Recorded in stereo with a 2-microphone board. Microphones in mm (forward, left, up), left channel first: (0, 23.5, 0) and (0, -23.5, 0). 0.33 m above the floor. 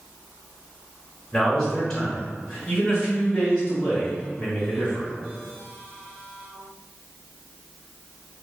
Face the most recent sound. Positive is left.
turn(degrees=25)  # may be behind; listen again after turning